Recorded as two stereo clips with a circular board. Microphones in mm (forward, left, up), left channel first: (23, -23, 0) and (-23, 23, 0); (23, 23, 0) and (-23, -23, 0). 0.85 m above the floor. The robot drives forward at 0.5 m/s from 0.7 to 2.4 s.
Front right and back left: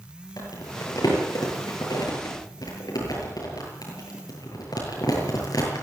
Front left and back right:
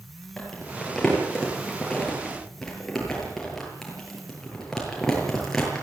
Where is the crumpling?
35° right, 8.5 m; by 5.8 s 40° right, 8 m.